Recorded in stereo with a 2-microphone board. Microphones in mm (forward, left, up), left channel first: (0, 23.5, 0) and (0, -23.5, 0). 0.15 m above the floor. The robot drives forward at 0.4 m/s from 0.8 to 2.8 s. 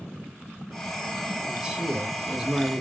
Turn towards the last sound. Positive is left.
turn(degrees=-10)  # may be behind; listen again after turning